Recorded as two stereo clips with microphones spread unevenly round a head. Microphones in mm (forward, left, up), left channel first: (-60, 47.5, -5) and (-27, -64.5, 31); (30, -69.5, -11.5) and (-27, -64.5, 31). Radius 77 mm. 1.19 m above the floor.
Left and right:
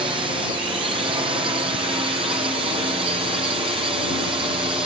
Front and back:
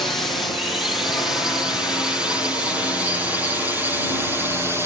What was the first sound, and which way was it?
A drone, 20° right.